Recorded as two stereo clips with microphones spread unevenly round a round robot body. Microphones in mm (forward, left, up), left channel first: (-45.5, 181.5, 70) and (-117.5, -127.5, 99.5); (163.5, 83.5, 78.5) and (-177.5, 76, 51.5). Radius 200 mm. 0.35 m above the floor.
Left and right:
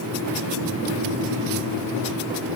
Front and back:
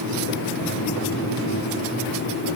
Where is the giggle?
I don't hear a giggle.